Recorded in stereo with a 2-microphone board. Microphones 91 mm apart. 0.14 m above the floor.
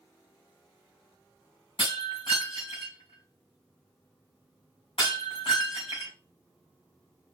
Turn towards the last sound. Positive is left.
turn(degrees=85)